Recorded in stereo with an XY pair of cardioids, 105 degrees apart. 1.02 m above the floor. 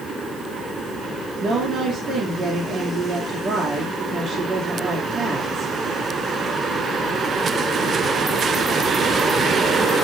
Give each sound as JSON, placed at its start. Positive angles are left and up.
{"t": 1.4, "sound": "a woman speaking", "azimuth_deg": -60, "distance_m": 2.5}